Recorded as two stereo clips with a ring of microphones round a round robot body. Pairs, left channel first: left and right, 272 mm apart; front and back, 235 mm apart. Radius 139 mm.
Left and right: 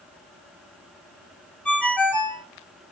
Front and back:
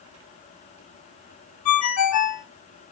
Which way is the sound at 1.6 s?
5° left.